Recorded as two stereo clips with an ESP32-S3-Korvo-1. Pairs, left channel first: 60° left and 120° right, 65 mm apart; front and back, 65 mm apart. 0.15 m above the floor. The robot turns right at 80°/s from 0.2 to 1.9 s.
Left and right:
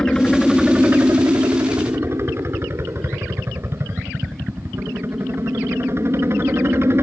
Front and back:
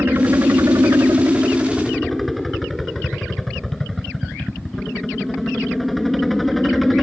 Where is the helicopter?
135° left; by 7.0 s 90° right.